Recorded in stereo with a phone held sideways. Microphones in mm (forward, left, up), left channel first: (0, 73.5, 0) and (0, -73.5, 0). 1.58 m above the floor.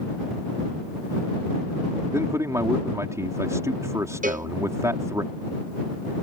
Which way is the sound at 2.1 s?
20° right (ahead or behind).